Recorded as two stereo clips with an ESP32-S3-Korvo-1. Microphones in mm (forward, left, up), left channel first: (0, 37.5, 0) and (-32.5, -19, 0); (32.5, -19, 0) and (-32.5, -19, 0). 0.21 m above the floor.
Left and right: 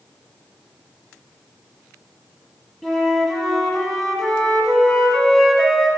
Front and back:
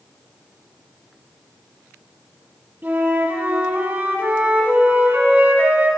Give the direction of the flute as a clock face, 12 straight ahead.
7 o'clock.